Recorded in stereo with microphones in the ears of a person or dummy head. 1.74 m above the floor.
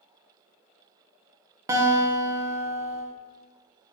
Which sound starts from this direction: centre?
A guitar, at 1.7 s.